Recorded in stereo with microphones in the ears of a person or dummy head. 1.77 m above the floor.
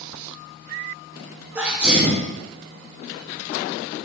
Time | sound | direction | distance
1.6 | a sneeze | 5° right (ahead or behind) | 0.7 m